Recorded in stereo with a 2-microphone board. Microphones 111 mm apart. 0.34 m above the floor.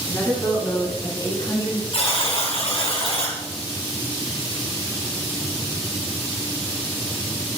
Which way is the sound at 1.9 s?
60° left (ahead or behind).